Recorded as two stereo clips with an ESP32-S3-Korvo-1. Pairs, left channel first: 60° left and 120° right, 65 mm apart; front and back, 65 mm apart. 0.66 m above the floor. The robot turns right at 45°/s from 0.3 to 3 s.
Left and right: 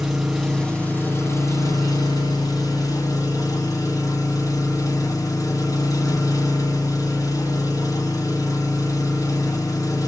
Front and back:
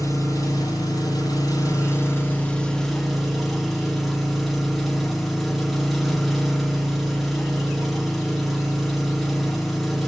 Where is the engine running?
30° right, 3.5 m; by 10.1 s 90° left, 3.5 m.